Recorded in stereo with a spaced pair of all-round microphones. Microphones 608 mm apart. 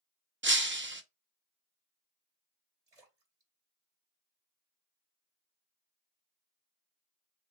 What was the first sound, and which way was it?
Breaking glass, 20° right (ahead or behind).